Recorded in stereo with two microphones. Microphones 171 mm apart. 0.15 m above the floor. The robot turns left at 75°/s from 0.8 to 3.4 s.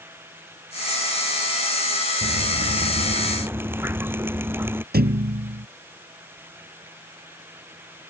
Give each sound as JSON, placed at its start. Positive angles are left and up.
{"t": 2.2, "sound": "dripping", "azimuth_deg": -75}
{"t": 4.9, "sound": "a thud", "side_deg": -70}